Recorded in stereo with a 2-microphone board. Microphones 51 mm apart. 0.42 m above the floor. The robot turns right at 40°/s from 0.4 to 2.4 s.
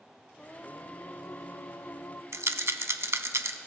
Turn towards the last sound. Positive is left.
turn(degrees=-75)  # may be behind; listen again after turning